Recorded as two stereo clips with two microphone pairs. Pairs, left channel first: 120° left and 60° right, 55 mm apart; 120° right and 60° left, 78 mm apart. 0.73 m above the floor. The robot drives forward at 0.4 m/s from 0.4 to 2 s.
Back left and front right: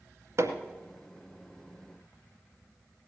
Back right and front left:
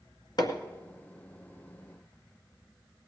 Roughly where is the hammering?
Right.